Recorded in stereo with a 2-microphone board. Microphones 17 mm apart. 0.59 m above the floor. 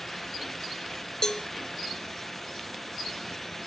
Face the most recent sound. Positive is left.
turn(degrees=35)  # may be behind; listen again after turning